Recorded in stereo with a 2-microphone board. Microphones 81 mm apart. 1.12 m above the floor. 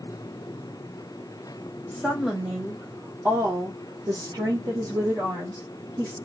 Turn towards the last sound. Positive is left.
turn(degrees=-45)  # may be behind; listen again after turning